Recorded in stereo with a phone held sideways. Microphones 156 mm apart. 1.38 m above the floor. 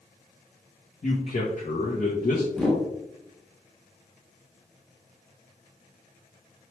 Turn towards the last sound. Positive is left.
turn(degrees=5)  # may be behind; listen again after turning